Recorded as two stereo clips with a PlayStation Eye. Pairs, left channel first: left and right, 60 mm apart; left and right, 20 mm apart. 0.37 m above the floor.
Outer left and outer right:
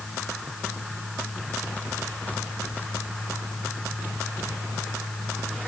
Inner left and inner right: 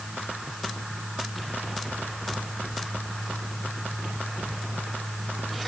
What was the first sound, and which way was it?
Only background noise.